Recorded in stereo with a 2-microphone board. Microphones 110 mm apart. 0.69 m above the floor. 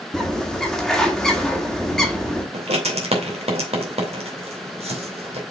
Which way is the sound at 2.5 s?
70° right (ahead or behind).